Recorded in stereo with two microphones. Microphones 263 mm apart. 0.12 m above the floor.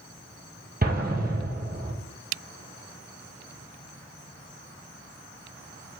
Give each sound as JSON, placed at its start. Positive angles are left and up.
{"t": 0.8, "sound": "an explosion", "side_deg": -35, "distance_m": 0.9}